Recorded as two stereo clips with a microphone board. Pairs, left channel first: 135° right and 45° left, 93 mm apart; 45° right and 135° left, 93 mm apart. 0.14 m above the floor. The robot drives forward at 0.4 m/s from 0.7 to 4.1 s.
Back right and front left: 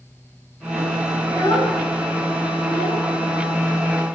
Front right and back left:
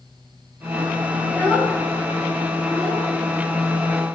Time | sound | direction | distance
1.2 | a child speaking | 100° right | 1.1 m